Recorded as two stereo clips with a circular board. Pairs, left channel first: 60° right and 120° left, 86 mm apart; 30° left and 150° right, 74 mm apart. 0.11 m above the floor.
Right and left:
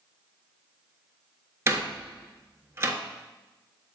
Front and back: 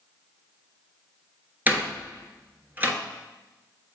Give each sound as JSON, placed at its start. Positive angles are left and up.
{"t": 1.7, "sound": "a door slam", "azimuth_deg": 160, "distance_m": 1.3}